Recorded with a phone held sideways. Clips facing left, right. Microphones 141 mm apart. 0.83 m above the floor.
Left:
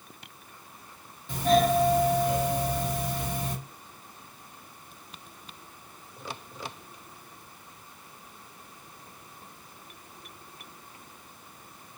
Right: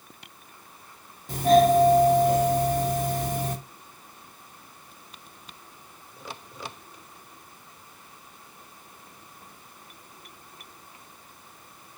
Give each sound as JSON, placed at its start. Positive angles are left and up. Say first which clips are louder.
{"t": 1.3, "sound": "a doorbell", "louder": "right 5 dB", "side_deg": -45, "distance_m": 1.7}